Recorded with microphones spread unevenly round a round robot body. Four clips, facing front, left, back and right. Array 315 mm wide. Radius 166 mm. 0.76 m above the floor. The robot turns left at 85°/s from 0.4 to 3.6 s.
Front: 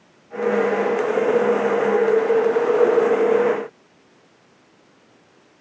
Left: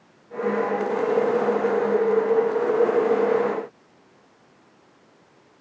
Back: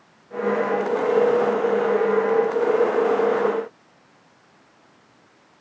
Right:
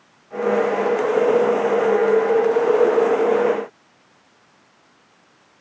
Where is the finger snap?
No finger snap in this recording.